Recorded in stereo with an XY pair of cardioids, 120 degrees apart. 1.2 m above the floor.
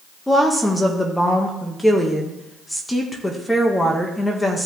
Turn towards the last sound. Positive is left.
turn(degrees=10)